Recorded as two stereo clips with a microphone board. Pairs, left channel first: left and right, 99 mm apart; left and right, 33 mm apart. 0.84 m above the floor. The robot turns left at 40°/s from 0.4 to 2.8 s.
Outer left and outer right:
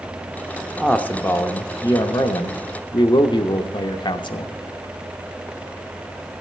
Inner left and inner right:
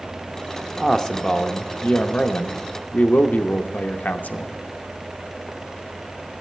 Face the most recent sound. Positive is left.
turn(degrees=90)